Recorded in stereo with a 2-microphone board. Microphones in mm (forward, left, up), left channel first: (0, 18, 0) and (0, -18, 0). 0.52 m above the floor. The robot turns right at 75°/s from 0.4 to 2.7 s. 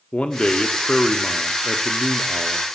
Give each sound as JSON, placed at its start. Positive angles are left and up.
{"t": 0.1, "sound": "a man speaking", "side_deg": 30, "distance_m": 0.7}